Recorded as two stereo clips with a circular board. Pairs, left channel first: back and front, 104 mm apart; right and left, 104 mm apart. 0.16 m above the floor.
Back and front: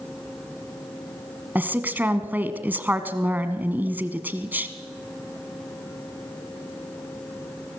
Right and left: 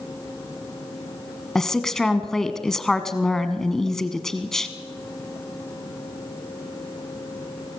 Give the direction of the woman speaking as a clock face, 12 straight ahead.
12 o'clock.